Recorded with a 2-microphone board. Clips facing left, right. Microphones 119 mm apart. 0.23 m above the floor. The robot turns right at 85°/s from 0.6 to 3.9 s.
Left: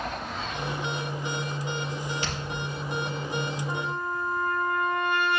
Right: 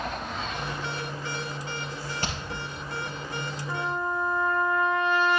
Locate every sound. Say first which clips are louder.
2.2 s hammering: even; 45° right (ahead or behind), 4.5 m; by 2.4 s 35° right (ahead or behind), 4.5 m
3.7 s a trumpet: right 1 dB; 45° left (ahead or behind), 3.5 m; by 5.4 s 60° left (ahead or behind), 3.5 m